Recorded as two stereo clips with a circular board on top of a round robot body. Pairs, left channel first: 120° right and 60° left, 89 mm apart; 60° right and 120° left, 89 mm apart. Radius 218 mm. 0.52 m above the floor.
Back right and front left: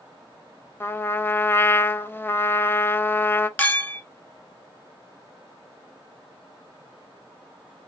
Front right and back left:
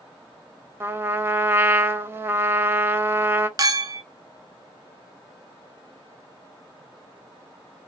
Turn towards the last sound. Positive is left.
turn(degrees=170)